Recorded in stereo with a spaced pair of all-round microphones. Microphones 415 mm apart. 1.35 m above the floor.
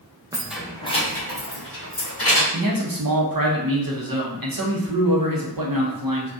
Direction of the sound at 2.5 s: 60° right (ahead or behind).